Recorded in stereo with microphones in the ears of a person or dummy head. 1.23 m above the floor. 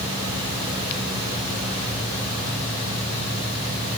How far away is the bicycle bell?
I don't hear a bicycle bell.